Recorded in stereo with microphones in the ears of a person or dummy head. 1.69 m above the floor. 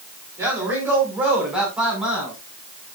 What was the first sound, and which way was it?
A man speaking, 10° right (ahead or behind).